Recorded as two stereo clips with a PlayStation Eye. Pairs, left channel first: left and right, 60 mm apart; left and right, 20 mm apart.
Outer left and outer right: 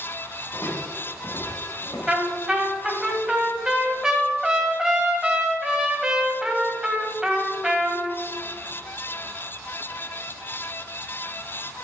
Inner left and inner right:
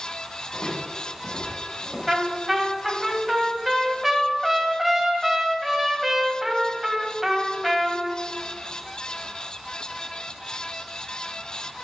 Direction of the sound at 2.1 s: 15° right (ahead or behind).